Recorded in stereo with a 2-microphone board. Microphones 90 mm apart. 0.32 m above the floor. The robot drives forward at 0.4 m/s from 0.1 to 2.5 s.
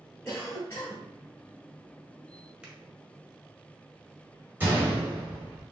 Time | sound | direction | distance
0.2 | a cough | 30° left (ahead or behind) | 1.5 m
2.6 | a finger snap | 10° right (ahead or behind) | 1.7 m
4.6 | a gunshot | 20° right (ahead or behind) | 1.7 m